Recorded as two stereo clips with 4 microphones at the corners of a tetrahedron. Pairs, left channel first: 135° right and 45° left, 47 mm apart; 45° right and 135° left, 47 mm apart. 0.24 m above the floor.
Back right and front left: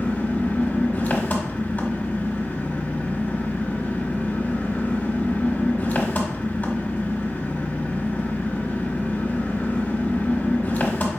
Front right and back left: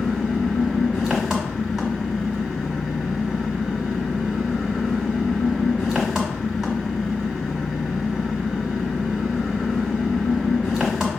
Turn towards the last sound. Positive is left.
turn(degrees=-150)